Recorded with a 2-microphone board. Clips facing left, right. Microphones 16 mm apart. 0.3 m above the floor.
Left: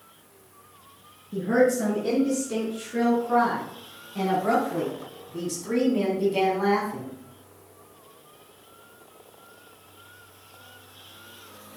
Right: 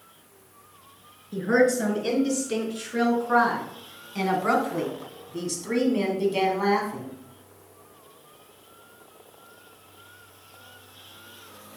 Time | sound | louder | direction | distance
1.3 | a woman speaking | even | 70° right (ahead or behind) | 5 m